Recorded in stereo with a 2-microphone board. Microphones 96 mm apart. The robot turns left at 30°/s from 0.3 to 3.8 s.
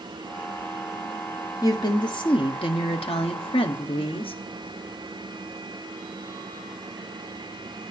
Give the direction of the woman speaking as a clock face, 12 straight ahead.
7 o'clock.